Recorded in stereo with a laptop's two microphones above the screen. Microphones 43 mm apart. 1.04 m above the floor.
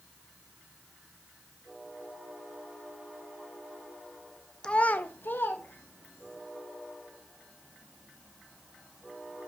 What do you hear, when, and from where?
4.6 s a child speaking: 20° left (ahead or behind), 0.5 m; by 6.4 s 65° left (ahead or behind), 2 m